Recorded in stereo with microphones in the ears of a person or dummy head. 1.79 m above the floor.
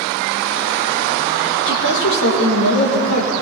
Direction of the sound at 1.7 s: 65° left (ahead or behind).